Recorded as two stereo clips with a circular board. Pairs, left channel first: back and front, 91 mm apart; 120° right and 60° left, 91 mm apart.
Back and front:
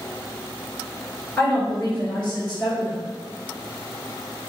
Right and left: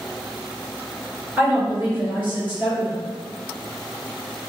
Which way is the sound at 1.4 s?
110° left.